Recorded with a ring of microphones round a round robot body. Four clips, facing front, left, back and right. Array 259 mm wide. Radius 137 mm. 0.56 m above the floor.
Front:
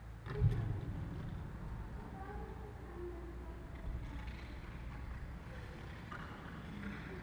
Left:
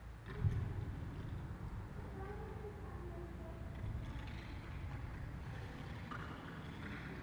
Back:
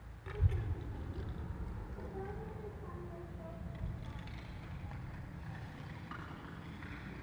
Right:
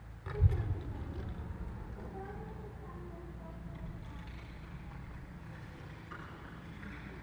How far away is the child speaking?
About 1.6 m.